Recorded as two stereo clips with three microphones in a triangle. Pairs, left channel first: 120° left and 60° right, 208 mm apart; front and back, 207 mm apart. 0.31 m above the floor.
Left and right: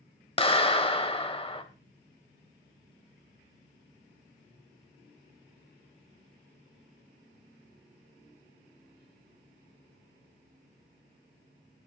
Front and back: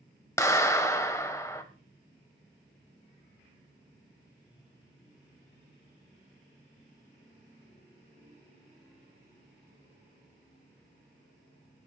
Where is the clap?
70° left, 1.1 m.